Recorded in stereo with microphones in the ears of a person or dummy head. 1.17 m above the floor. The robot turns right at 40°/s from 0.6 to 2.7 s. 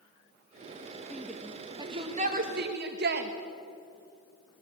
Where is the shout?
10° left (ahead or behind), 1.8 m; by 3.3 s 50° right (ahead or behind), 1.8 m.